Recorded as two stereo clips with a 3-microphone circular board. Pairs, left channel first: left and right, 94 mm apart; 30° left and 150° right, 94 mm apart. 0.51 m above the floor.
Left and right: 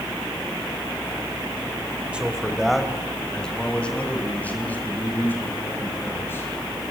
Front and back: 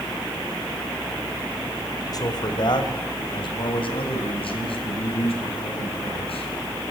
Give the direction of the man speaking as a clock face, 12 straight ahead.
12 o'clock.